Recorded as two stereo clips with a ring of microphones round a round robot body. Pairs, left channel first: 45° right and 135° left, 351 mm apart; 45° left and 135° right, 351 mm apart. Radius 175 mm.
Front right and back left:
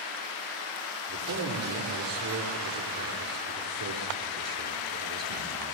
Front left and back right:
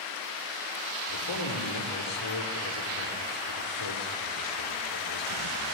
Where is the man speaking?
90° left, 6.5 m.